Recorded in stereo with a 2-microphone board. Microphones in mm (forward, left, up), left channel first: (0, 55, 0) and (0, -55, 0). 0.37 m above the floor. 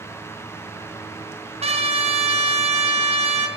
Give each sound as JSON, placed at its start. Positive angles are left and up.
{"t": 1.6, "sound": "a trumpet", "side_deg": -70, "distance_m": 2.5}